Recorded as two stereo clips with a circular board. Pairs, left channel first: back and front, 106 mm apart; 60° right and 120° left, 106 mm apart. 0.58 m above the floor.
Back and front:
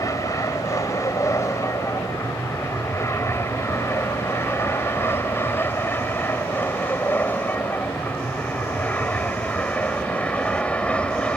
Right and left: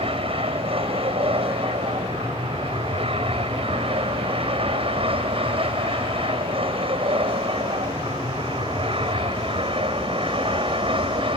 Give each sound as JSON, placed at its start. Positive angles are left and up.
{"t": 0.0, "sound": "an aircraft", "azimuth_deg": 125}